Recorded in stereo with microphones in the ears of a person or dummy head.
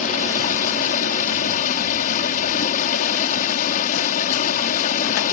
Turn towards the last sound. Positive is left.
turn(degrees=50)  # may be behind; listen again after turning